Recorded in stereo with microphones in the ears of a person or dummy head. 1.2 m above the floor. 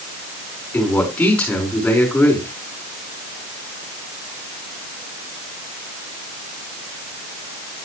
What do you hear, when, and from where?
0.7 s a man speaking: 5° left (ahead or behind), 5 m